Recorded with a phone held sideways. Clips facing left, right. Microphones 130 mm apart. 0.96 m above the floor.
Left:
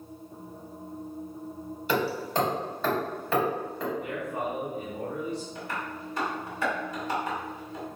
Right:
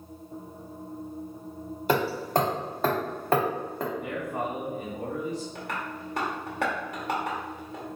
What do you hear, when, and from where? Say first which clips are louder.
1.9 s hammering: right 3 dB; 50° right (ahead or behind), 0.8 m
4.0 s a man speaking: right 1 dB; 40° right (ahead or behind), 1.7 m
5.5 s tapping: even; 65° right (ahead or behind), 1.2 m